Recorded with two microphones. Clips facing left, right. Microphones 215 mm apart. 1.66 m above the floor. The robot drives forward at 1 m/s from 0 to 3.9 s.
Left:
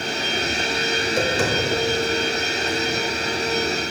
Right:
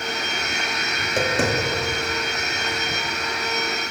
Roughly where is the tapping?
Right.